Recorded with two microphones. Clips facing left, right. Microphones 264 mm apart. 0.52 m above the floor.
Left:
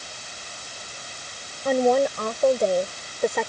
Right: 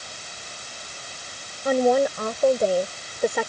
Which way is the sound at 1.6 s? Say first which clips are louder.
Even; centre (ahead or behind).